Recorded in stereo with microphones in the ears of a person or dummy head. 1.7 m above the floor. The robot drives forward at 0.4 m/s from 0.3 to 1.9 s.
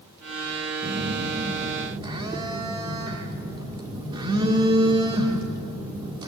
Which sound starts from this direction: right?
A phone buzzing, at 0.8 s.